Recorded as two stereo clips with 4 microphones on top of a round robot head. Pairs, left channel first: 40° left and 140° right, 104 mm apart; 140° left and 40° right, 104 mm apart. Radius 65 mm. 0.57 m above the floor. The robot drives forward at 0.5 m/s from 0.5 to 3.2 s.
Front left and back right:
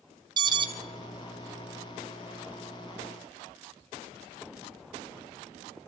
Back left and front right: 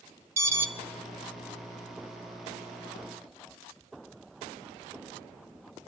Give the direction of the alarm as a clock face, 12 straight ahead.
3 o'clock.